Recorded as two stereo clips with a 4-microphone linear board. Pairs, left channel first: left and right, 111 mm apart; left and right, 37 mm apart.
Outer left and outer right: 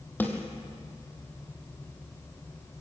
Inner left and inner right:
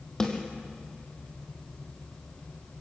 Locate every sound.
0.2 s a snare drum: 15° left (ahead or behind), 2.0 m